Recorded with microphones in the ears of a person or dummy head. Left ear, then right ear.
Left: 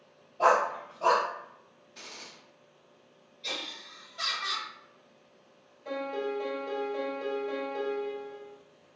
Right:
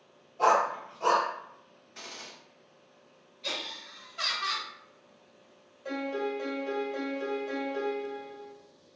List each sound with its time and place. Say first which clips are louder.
0.4 s a dog barking: even; 45° right (ahead or behind), 1.7 m
1.9 s a gunshot: right 2 dB; 30° right (ahead or behind), 1.0 m
3.4 s laughter: right 1 dB; 30° right (ahead or behind), 1.7 m
5.8 s a piano: even; 80° right, 1.6 m